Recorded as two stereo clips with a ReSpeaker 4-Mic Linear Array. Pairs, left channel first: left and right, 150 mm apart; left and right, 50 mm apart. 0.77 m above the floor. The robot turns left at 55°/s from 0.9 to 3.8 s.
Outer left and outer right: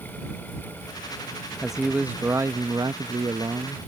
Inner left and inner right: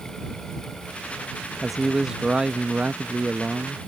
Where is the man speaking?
Centre (ahead or behind); by 3.8 s 25° right (ahead or behind).